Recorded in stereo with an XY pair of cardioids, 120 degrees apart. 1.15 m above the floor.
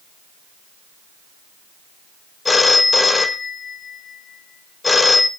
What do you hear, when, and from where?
2.5 s a phone ringing: 20° left, 1.0 m